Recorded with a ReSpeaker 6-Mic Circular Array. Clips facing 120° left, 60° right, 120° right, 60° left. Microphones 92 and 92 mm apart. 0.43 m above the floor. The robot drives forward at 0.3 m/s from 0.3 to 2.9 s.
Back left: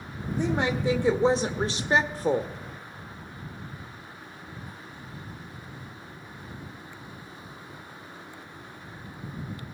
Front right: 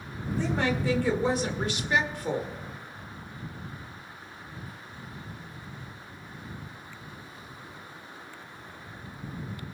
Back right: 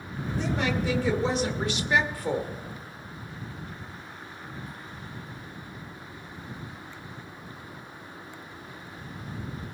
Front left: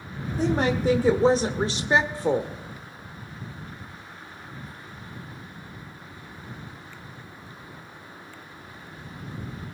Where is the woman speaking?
60° left, 1.3 m; by 2.5 s 105° left, 1.2 m.